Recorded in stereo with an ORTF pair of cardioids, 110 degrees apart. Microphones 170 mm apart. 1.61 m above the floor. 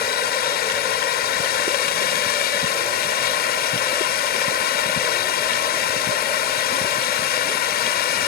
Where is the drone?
65° left.